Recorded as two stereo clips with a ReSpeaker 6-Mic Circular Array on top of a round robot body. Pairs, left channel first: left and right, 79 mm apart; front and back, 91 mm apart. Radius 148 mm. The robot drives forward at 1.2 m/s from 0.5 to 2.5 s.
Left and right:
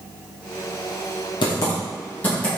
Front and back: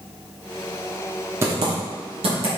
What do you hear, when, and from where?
1.4 s typing on a keyboard: 115° left, 0.5 m; by 2.5 s 165° left, 1.6 m